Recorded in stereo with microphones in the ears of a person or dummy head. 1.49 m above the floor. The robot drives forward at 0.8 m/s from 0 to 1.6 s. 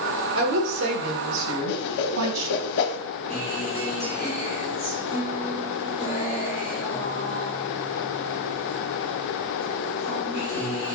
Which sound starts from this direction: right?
A woman speaking, at 0.3 s.